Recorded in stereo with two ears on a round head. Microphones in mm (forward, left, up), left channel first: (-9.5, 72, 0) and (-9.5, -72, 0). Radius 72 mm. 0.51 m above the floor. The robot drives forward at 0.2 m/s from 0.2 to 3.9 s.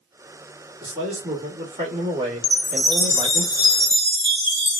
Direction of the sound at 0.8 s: 30° right (ahead or behind).